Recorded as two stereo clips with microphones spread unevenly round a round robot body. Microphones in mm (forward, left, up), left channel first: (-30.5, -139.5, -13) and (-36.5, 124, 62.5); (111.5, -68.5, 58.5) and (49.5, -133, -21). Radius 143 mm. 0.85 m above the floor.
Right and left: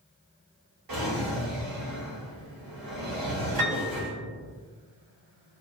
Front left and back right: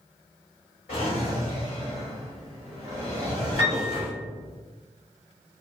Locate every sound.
0.9 s a drawer: 90° left, 1.8 m
3.6 s a piano: 70° left, 1.8 m